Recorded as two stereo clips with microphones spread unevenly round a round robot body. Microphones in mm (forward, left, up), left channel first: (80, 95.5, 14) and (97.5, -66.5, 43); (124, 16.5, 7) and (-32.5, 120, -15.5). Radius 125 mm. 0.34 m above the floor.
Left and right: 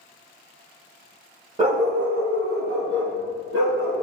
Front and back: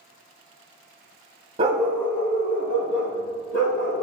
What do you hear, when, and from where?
1.6 s a dog barking: 155° right, 0.7 m; by 4.0 s 85° right, 4 m